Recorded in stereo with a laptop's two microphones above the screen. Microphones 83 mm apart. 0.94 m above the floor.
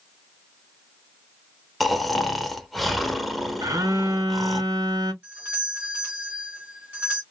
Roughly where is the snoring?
Centre.